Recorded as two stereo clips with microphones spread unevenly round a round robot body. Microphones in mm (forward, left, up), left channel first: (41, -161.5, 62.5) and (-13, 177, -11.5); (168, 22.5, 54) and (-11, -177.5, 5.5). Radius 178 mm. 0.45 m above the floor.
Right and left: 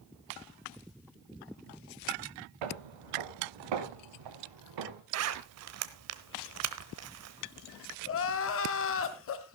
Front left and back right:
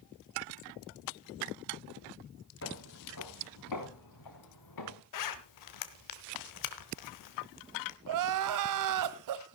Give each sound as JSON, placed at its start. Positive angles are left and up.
{"t": 2.6, "sound": "footsteps", "azimuth_deg": 105, "distance_m": 1.9}
{"t": 5.1, "sound": "a zipper", "azimuth_deg": 60, "distance_m": 1.0}
{"t": 8.1, "sound": "crying", "azimuth_deg": -135, "distance_m": 0.8}